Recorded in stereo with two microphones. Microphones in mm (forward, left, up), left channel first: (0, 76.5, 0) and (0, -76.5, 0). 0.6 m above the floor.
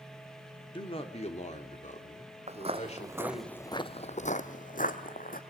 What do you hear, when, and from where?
0.7 s a man speaking: 35° left (ahead or behind), 2.0 m; by 3.5 s 40° left (ahead or behind), 3.5 m
2.5 s footsteps: 45° right (ahead or behind), 1.1 m; by 5.4 s 65° left (ahead or behind), 1.9 m